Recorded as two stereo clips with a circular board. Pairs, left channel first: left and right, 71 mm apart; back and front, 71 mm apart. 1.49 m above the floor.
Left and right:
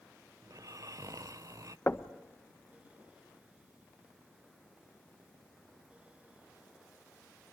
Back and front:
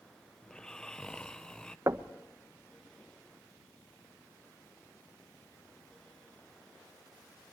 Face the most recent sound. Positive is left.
turn(degrees=35)